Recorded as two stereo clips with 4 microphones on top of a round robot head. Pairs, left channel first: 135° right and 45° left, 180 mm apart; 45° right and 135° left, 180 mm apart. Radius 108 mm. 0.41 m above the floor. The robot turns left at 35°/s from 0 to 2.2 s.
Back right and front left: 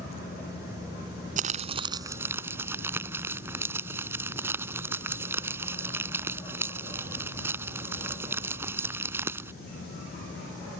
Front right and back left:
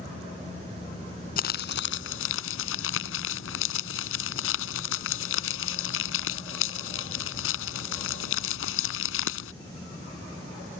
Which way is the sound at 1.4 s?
Straight ahead.